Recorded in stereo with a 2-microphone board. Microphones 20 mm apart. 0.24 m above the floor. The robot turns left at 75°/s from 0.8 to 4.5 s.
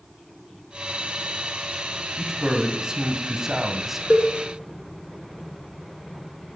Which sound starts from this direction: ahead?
A man speaking, at 2.2 s.